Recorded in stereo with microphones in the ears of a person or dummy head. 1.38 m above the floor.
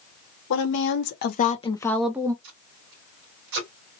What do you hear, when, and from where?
0.5 s a woman speaking: 70° left (ahead or behind), 1.0 m; by 2.3 s 15° right (ahead or behind), 0.6 m
2.4 s tape being pulled: 55° right (ahead or behind), 1.5 m